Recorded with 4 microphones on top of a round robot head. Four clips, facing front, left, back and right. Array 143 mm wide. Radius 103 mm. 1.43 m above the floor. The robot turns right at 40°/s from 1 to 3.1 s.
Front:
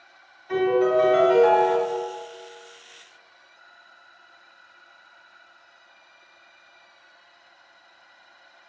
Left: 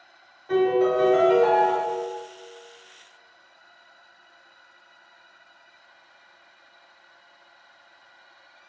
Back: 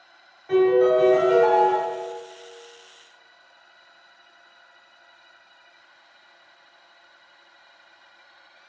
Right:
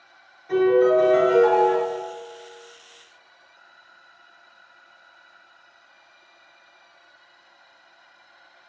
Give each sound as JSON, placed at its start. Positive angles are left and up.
{"t": 0.5, "sound": "a piano", "azimuth_deg": 145, "distance_m": 1.8}